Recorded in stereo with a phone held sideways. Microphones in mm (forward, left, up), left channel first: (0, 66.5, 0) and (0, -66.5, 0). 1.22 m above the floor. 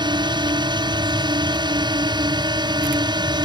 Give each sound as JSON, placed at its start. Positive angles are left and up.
{"t": 0.0, "sound": "a drone", "side_deg": -30}